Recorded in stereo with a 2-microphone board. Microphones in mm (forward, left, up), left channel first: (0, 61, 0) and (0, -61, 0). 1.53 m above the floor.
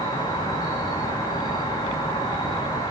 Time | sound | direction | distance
0.0 | an insect | 35° left (ahead or behind) | 5 m